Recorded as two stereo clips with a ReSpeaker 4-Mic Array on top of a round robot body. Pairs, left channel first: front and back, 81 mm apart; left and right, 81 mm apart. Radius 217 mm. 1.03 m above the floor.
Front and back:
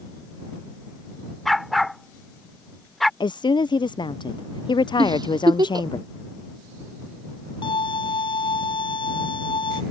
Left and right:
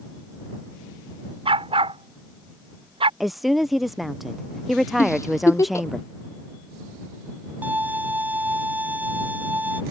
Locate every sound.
1.4 s a dog barking: 90° right
3.2 s a woman speaking: straight ahead
5.0 s a giggle: 145° left
7.6 s a violin: 20° right